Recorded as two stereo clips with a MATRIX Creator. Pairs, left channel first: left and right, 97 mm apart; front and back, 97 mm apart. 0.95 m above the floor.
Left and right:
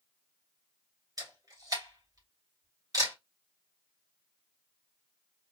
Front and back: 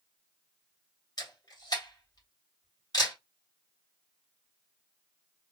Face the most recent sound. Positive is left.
turn(degrees=-45)